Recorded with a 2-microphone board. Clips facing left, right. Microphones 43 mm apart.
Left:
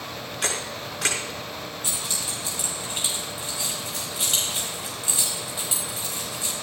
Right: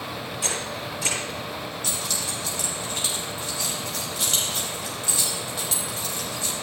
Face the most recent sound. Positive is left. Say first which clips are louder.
# right 1 dB
turn(degrees=25)  # may be behind; listen again after turning